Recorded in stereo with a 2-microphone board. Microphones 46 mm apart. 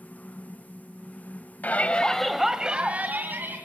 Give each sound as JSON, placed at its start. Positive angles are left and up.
{"t": 1.6, "sound": "a shout", "side_deg": 40, "distance_m": 1.7}